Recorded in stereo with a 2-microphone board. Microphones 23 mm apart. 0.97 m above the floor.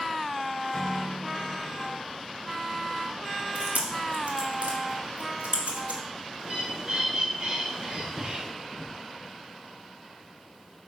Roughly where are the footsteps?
Centre.